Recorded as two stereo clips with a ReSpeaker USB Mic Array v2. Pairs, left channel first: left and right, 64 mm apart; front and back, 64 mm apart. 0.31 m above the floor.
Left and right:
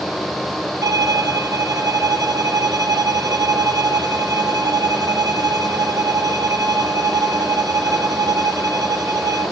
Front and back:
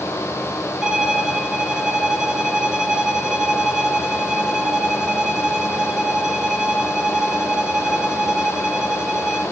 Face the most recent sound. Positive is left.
turn(degrees=-100)